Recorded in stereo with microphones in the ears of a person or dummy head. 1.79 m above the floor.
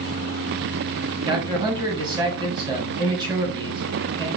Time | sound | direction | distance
1.3 | a man speaking | 25° right (ahead or behind) | 1.6 m